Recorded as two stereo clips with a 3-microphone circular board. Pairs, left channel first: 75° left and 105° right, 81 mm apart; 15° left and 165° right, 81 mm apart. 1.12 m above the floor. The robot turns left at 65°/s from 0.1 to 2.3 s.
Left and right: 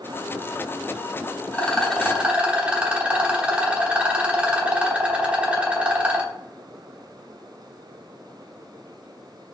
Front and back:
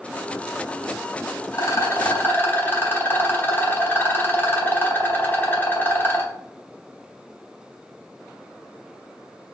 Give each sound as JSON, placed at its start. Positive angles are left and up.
{"t": 1.5, "sound": "a rattle", "azimuth_deg": 15, "distance_m": 0.8}